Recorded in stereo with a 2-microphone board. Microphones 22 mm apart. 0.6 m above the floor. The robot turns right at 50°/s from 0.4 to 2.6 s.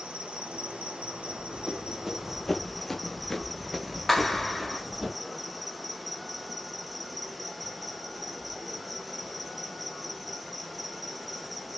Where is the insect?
110° right, 0.7 m; by 11.8 s straight ahead, 0.7 m.